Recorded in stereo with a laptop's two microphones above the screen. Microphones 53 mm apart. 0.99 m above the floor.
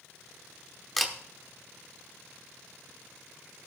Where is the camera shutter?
Centre (ahead or behind), 1.1 m.